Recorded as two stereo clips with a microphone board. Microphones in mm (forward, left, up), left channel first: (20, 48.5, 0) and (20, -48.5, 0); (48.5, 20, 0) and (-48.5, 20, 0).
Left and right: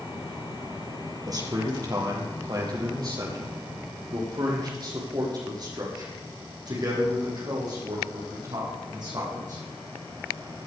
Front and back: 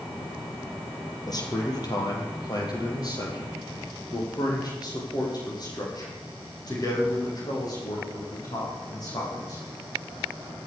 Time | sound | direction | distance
1.3 | a man speaking | 45° right | 3.5 m